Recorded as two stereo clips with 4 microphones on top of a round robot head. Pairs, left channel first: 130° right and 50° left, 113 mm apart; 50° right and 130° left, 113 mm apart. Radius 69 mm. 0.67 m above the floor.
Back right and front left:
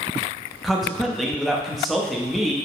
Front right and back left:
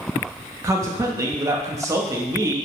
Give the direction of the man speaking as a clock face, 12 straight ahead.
7 o'clock.